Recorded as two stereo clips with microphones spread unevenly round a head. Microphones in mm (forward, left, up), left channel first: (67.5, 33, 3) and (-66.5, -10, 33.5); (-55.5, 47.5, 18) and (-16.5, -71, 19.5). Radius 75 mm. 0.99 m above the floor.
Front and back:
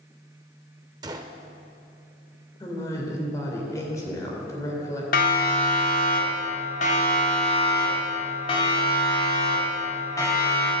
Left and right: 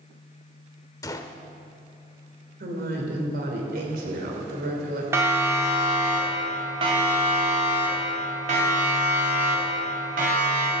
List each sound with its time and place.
1.0 s a gunshot: 160° left, 0.8 m
2.6 s a woman speaking: 55° right, 3 m
5.1 s a siren: straight ahead, 3 m; by 10.7 s 55° right, 4 m